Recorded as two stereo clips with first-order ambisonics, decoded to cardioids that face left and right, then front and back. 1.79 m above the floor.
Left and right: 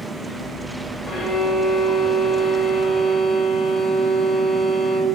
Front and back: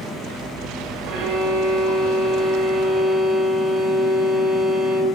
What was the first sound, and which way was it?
A violin, 160° left.